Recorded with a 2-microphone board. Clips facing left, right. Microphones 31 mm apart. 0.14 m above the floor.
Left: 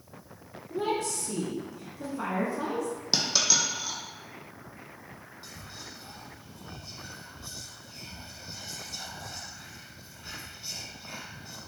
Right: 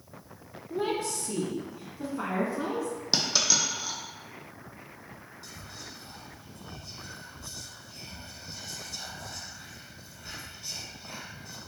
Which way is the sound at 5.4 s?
20° left (ahead or behind).